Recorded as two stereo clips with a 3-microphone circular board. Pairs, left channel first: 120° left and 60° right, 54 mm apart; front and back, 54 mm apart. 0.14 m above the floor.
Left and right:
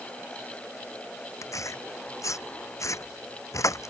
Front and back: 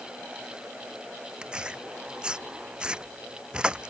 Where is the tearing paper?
105° left.